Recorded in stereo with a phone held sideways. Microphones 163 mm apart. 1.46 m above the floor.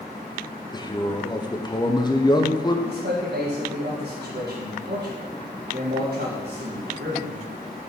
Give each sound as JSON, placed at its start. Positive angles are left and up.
{"t": 0.7, "sound": "a man speaking", "side_deg": 25, "distance_m": 1.0}
{"t": 2.9, "sound": "a man speaking", "side_deg": -90, "distance_m": 1.6}